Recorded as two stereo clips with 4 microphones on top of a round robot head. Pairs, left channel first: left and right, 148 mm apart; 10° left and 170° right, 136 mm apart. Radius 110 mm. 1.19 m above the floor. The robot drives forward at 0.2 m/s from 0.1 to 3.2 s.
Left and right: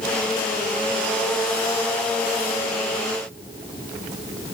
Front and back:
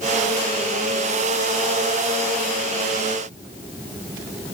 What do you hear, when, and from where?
Only background noise.